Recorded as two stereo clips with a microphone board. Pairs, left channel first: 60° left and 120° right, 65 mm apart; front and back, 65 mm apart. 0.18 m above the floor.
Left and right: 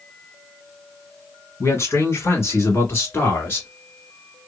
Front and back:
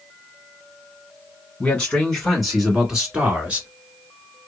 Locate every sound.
1.6 s a man speaking: 55° left, 1.4 m; by 3.7 s 110° left, 2 m